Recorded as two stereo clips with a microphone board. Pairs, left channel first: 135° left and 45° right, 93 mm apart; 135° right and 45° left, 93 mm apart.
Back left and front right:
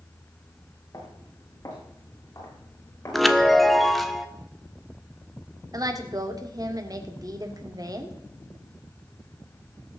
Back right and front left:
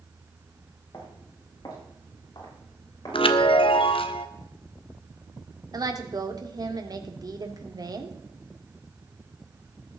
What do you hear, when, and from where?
0.9 s footsteps: 175° left, 7 m; by 3.9 s 175° right, 9 m
3.1 s a chime: 135° right, 1.1 m
5.7 s a woman speaking: straight ahead, 2 m